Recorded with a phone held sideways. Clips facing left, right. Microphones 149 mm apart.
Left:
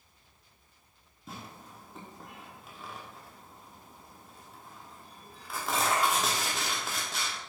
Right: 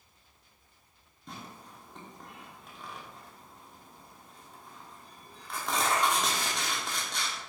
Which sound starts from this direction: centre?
Tearing paper, at 1.3 s.